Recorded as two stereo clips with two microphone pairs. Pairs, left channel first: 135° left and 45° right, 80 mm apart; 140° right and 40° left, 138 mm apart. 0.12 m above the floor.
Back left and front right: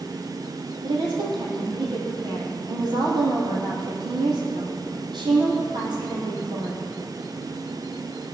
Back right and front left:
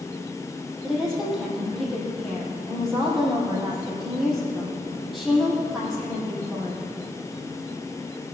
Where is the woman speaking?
50° right, 4 m.